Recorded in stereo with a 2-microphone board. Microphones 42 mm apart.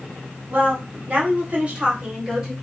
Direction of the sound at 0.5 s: 45° right (ahead or behind).